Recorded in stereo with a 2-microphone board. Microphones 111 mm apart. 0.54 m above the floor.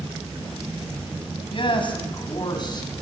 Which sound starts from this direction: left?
A man speaking, at 1.5 s.